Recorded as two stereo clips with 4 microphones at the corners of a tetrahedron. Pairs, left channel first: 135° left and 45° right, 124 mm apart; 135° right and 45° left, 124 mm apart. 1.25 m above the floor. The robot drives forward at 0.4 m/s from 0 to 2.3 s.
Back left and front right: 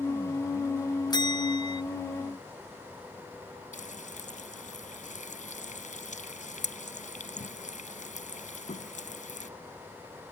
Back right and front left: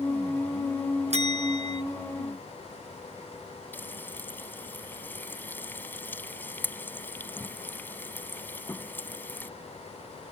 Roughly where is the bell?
Left.